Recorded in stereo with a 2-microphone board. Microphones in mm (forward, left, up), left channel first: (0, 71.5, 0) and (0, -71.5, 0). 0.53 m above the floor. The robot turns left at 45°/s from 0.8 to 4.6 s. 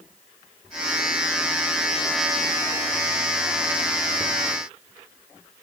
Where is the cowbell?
No cowbell in this recording.